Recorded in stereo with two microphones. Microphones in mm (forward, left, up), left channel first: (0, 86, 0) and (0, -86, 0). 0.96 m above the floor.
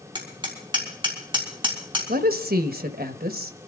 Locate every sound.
0.1 s hammering: 30° right (ahead or behind), 4 m
2.1 s a woman speaking: 65° right (ahead or behind), 1.2 m